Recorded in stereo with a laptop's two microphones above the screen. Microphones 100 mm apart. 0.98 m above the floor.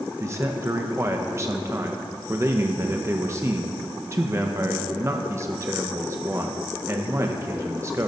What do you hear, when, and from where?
0.2 s a man speaking: 30° right (ahead or behind), 0.6 m